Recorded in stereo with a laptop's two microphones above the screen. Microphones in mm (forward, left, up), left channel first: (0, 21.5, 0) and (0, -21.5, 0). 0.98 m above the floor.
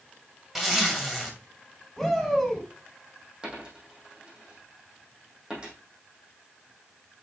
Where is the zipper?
5° right (ahead or behind), 2 m.